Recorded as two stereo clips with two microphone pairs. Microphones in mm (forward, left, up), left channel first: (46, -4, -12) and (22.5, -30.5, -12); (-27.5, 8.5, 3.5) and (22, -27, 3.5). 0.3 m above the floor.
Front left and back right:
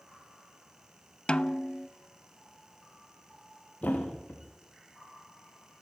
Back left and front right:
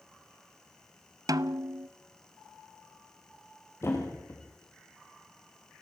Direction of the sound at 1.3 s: 15° right.